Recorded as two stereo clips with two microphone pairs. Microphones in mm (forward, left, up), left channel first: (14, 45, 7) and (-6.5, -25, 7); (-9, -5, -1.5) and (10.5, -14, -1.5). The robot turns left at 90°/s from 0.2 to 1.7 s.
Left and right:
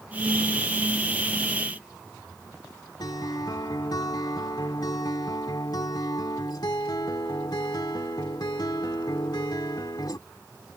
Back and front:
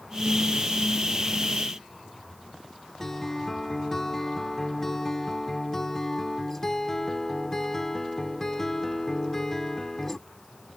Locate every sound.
3.0 s a guitar: 90° left